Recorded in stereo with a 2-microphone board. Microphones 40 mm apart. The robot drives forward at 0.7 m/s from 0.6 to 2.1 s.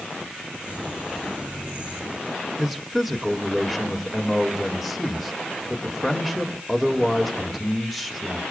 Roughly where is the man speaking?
Centre.